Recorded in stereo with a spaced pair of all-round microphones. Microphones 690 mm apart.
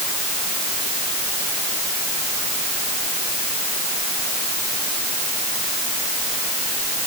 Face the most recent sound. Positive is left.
No sound to turn to.